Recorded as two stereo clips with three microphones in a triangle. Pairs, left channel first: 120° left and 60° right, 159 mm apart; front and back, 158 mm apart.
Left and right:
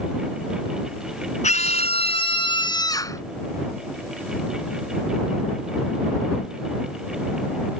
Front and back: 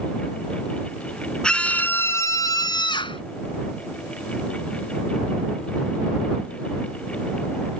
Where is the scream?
85° left; by 3.2 s 55° left.